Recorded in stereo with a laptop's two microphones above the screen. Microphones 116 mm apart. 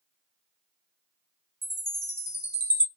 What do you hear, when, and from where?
1.6 s a chime: 60° right (ahead or behind), 1.1 m